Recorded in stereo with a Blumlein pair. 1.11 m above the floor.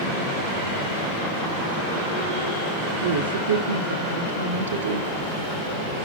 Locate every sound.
3.0 s a woman speaking: 65° right, 2 m